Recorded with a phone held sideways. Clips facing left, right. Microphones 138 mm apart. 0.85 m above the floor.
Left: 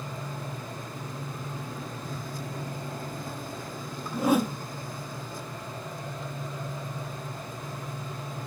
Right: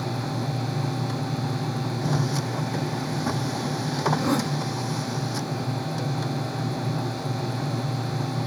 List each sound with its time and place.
0.0 s a machine running: 80° right
4.1 s a whoosh: 5° left (ahead or behind)